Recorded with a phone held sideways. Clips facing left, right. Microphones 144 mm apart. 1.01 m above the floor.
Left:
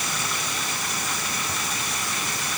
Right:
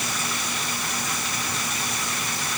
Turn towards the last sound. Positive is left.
No sound to turn to.